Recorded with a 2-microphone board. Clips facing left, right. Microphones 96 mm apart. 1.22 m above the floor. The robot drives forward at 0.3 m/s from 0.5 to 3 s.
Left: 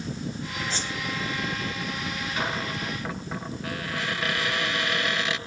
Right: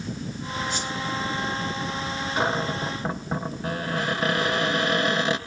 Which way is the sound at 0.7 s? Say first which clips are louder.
Right 2 dB; 35° left (ahead or behind).